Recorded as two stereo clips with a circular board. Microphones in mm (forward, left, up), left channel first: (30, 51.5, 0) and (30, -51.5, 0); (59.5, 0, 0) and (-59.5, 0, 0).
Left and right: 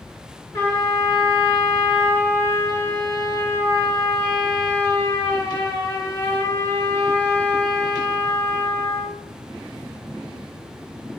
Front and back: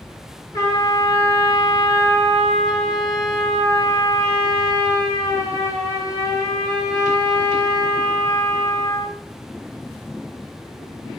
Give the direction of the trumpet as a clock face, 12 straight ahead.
10 o'clock.